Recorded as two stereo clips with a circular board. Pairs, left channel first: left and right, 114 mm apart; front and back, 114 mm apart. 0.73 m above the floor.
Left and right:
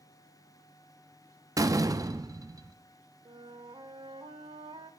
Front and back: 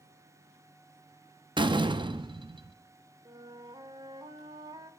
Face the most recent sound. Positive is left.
turn(degrees=-130)